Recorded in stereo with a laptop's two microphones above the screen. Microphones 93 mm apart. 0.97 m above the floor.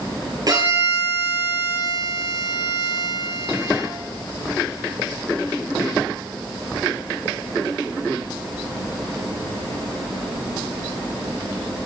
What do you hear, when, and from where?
0.5 s a violin: 40° right (ahead or behind), 4.5 m